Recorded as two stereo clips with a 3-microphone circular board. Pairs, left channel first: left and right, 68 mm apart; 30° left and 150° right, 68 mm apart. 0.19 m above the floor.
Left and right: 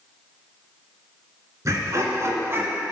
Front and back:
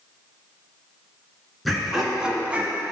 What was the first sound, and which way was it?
Laughter, 60° right.